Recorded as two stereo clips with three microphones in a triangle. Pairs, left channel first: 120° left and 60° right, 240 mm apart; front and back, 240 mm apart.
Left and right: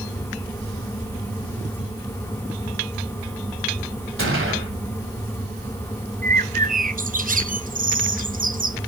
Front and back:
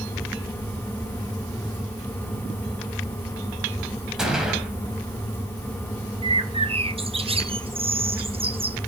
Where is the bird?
115° right, 0.5 m.